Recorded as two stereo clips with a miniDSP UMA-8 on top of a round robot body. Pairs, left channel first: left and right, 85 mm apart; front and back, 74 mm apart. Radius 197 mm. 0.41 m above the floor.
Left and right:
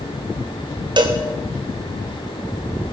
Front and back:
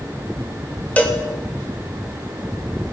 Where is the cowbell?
70° right, 1.9 m.